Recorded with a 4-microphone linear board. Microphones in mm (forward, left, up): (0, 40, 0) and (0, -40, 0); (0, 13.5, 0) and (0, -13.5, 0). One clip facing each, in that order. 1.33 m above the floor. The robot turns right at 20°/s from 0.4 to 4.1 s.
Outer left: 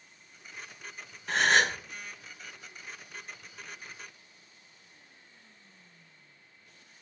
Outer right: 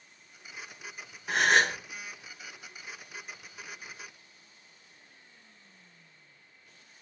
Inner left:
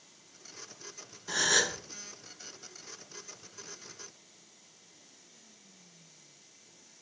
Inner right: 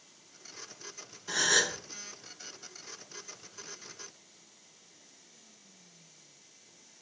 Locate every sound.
1.3 s a gasp: 10° right (ahead or behind), 0.6 m; by 1.8 s centre (ahead or behind), 0.6 m